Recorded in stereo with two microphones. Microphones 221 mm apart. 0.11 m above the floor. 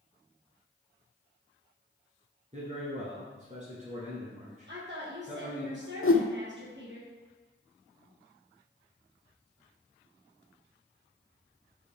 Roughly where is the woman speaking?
Right.